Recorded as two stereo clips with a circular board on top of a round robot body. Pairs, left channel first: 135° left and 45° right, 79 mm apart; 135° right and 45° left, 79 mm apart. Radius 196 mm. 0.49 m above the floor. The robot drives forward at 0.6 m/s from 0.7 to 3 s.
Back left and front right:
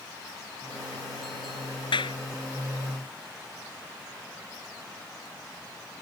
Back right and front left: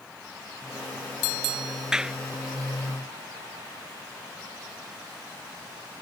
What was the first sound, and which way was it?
A clap, 125° left.